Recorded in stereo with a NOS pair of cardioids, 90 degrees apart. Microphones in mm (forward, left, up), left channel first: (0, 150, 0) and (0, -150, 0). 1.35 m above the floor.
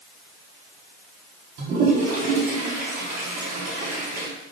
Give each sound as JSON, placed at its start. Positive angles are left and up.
{"t": 1.6, "sound": "a toilet flushing", "azimuth_deg": -65, "distance_m": 4.0}